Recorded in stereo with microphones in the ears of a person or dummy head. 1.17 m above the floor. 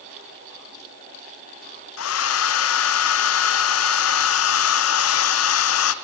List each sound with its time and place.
2.0 s a hair dryer: 70° left (ahead or behind), 0.5 m